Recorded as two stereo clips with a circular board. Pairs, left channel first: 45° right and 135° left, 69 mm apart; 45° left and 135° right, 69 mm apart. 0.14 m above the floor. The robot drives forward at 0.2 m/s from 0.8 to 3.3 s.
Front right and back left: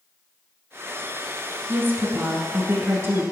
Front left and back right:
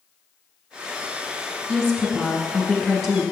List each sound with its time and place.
1.7 s a woman speaking: 115° left, 1.2 m; by 3.2 s 135° left, 1.3 m